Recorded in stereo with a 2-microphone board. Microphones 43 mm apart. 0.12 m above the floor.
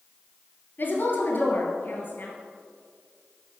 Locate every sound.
0.8 s a woman speaking: 50° left (ahead or behind), 1.8 m